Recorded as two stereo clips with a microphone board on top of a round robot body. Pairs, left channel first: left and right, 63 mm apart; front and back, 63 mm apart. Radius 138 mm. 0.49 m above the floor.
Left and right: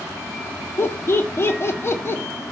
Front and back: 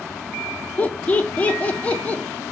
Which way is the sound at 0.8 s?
60° left.